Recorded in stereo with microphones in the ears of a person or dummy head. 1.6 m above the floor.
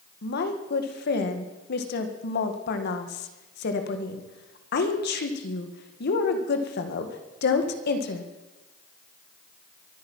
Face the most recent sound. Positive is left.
turn(degrees=60)  # may be behind; listen again after turning